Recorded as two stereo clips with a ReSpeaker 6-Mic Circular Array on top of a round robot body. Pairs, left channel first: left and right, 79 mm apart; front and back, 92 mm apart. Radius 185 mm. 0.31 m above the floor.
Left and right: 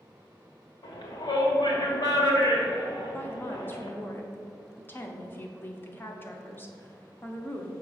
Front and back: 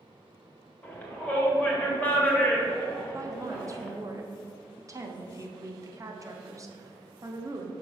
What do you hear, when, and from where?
0.8 s a shout: 70° left, 1.9 m
3.1 s a woman speaking: 145° left, 1.0 m